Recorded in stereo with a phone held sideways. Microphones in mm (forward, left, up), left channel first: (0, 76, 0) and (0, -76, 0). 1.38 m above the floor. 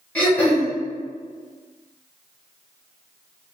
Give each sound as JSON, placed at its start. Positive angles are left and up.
{"t": 0.1, "sound": "throat clearing", "side_deg": 10, "distance_m": 1.7}